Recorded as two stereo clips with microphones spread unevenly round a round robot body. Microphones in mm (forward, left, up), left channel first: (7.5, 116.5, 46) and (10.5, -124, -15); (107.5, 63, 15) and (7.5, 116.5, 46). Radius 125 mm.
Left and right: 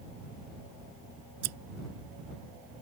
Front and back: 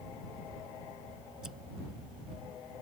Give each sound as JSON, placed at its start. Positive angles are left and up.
{"t": 1.4, "sound": "scissors", "azimuth_deg": -120}